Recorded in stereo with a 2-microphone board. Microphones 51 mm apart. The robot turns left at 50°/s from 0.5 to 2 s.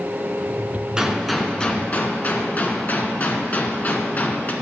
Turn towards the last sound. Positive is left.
turn(degrees=140)